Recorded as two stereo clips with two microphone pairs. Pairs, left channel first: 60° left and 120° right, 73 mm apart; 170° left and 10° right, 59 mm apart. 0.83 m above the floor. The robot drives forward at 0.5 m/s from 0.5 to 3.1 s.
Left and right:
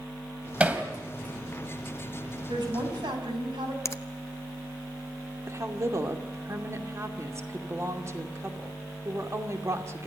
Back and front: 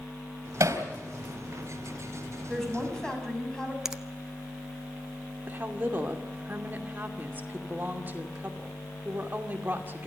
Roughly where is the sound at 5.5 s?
Ahead right.